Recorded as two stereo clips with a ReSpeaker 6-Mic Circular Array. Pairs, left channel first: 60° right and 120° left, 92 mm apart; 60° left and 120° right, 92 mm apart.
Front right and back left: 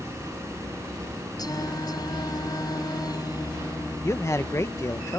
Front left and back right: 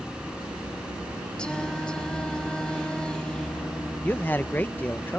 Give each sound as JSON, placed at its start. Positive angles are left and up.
{"t": 1.4, "sound": "singing", "azimuth_deg": -20}
{"t": 4.0, "sound": "a man speaking", "azimuth_deg": -5}